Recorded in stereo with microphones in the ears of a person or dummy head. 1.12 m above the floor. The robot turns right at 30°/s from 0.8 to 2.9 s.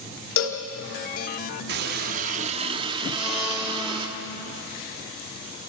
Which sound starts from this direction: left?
A cowbell, at 0.4 s.